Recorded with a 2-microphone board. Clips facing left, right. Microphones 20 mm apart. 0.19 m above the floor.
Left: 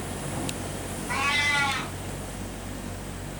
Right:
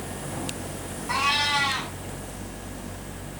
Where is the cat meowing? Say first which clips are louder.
Right 1 dB; 80° right, 2 m.